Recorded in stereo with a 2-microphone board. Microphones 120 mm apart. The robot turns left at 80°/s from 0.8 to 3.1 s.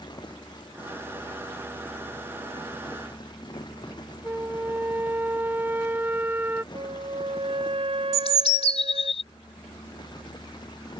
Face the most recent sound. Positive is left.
turn(degrees=55)  # may be behind; listen again after turning